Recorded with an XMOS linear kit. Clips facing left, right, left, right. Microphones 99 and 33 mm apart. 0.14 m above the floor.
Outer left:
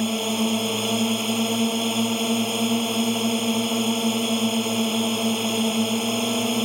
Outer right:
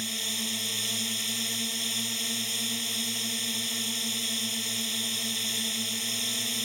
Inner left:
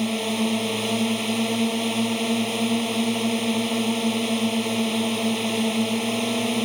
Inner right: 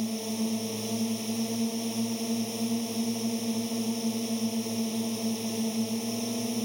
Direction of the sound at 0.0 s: 55° left (ahead or behind).